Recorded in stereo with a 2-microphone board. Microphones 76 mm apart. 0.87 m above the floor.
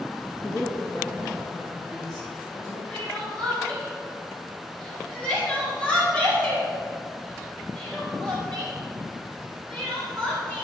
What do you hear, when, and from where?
0.4 s a woman speaking: 25° left (ahead or behind), 1.1 m; by 2.8 s 55° left (ahead or behind), 2.5 m
2.9 s crying: 15° left (ahead or behind), 3.5 m